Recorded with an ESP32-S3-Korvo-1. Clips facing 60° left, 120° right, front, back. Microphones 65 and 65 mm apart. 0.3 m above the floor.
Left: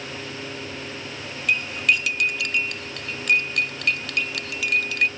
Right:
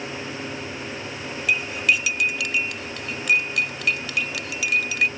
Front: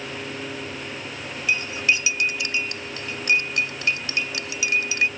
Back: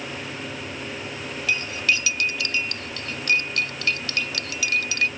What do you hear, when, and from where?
1.5 s cutlery clinking: 35° right